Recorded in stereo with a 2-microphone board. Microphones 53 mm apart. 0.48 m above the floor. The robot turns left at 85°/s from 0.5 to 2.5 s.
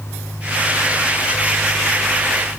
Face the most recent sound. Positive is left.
No sound to turn to.